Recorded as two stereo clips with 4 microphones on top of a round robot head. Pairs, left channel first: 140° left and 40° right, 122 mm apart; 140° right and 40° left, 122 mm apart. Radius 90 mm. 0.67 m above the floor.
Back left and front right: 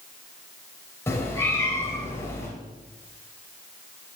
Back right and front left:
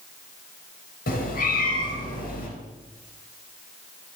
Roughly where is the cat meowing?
Behind right.